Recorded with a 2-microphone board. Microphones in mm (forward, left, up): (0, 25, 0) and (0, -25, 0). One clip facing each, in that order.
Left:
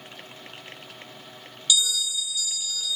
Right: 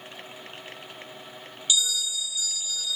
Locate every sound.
1.7 s a bell: 35° right (ahead or behind), 1.2 m